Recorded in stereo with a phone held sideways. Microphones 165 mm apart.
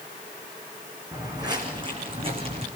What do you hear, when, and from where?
1.1 s footsteps: 20° right (ahead or behind), 3.5 m; by 2.7 s 40° right (ahead or behind), 4 m